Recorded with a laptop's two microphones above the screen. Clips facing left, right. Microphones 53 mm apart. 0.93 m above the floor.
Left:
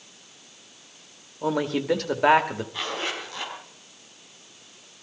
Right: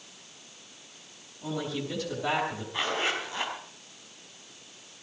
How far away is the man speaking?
About 2 m.